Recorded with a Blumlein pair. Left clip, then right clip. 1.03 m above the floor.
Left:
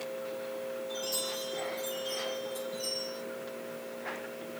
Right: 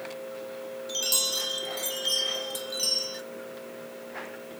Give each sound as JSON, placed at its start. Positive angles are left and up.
{"t": 0.9, "sound": "a chime", "azimuth_deg": -40, "distance_m": 1.1}